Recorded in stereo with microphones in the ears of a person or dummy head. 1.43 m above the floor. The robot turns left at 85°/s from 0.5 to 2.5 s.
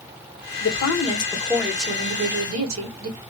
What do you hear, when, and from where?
0.6 s a woman speaking: 80° left, 1.3 m; by 3.2 s 85° right, 1.3 m